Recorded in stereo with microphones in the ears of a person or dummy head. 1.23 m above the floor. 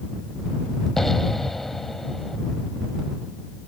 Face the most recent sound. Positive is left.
turn(degrees=5)  # may be behind; listen again after turning